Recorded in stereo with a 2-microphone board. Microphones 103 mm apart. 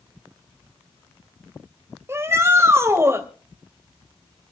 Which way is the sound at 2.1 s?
25° right (ahead or behind).